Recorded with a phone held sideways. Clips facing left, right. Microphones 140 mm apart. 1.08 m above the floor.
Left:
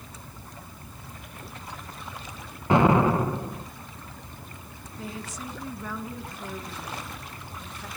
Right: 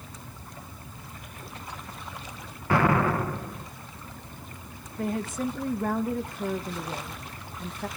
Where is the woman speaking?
55° right (ahead or behind), 1.4 m.